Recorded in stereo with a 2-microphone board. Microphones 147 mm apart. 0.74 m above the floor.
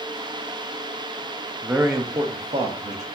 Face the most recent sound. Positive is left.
turn(degrees=-55)  # may be behind; listen again after turning